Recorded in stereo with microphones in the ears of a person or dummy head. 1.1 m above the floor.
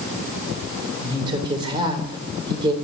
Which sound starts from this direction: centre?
A woman speaking, at 1.0 s.